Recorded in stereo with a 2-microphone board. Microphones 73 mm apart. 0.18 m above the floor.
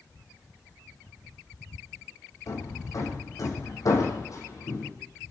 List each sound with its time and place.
2.5 s hammering: 45° left (ahead or behind), 4.5 m